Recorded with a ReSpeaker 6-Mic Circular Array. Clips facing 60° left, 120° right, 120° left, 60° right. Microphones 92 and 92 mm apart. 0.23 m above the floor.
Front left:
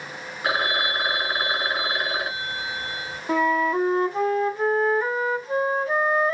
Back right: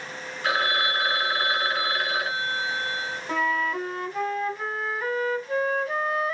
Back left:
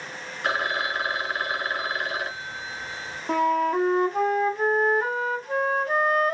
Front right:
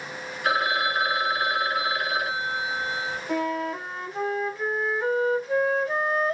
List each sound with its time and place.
0.4 s a phone ringing: 120° left, 0.8 m
3.3 s a flute: 115° left, 0.9 m